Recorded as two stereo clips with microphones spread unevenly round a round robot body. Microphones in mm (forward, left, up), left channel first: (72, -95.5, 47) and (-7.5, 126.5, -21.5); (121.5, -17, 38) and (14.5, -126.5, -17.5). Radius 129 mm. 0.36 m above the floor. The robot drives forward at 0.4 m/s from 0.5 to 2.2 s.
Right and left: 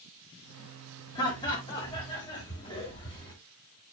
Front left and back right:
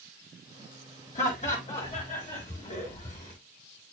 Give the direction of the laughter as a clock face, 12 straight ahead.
12 o'clock.